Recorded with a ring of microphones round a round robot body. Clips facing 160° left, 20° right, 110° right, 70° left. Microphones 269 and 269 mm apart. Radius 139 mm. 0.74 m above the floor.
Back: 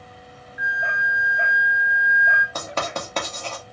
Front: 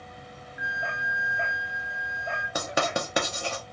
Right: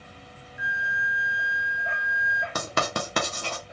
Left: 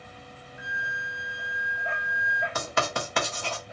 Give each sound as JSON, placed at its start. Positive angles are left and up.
{"t": 0.6, "sound": "a flute", "azimuth_deg": 140, "distance_m": 1.1}
{"t": 2.5, "sound": "writing", "azimuth_deg": -95, "distance_m": 1.0}